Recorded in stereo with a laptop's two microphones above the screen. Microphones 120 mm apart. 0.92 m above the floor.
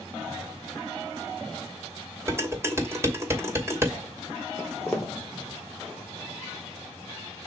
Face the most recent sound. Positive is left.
turn(degrees=5)  # may be behind; listen again after turning